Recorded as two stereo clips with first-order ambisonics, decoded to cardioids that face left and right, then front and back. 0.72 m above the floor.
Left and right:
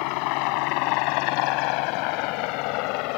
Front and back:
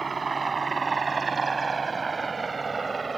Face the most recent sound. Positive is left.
turn(degrees=100)